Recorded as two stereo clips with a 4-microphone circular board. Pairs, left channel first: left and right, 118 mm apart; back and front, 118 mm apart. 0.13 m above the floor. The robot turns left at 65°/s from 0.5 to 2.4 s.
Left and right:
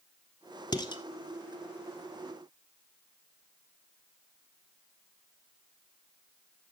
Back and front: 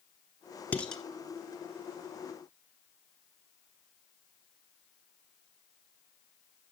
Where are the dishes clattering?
110° left, 1.2 m; by 1.0 s 90° left, 1.2 m.